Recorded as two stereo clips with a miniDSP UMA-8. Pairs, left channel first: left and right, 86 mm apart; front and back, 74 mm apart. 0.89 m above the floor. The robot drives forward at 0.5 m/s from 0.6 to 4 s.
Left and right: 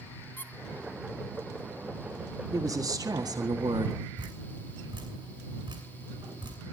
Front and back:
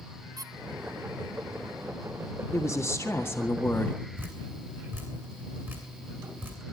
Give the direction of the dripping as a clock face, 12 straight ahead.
4 o'clock.